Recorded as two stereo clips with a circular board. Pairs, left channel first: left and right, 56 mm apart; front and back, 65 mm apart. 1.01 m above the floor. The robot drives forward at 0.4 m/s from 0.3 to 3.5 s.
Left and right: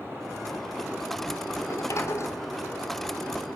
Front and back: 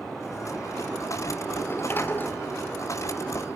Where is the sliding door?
55° left, 3.5 m; by 3.4 s 65° left, 3 m.